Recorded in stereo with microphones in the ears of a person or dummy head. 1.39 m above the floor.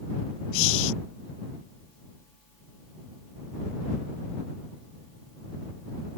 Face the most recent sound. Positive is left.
turn(degrees=70)  # may be behind; listen again after turning